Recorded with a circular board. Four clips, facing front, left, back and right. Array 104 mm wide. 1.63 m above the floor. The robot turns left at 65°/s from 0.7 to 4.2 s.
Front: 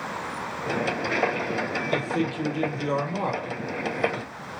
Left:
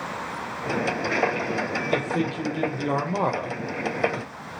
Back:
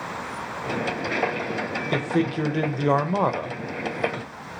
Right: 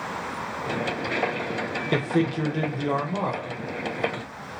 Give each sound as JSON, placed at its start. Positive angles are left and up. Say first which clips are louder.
{"t": 1.9, "sound": "a man speaking", "louder": "right 3 dB, back 4 dB", "azimuth_deg": -120, "distance_m": 0.8}